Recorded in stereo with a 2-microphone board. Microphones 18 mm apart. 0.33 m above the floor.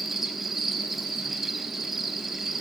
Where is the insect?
15° right (ahead or behind), 1.1 m.